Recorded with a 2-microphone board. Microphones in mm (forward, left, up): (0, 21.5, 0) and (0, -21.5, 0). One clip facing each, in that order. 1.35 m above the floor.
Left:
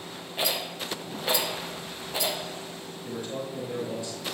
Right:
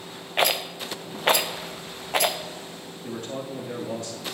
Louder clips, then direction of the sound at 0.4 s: Right 6 dB; 60° right (ahead or behind).